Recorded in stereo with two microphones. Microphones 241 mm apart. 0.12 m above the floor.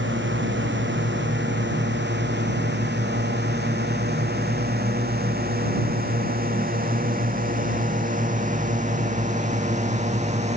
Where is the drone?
50° right (ahead or behind); by 10.6 s 30° right (ahead or behind).